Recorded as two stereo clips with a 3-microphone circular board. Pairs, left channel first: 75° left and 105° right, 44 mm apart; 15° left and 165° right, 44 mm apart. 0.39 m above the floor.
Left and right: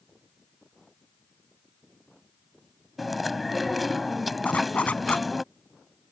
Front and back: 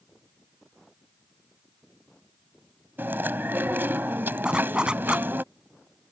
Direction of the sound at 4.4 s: 130° left.